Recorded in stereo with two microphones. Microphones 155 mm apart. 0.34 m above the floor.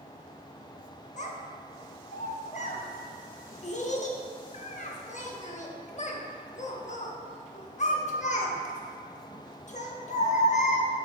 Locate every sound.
1.2 s a child speaking: 50° left (ahead or behind), 0.6 m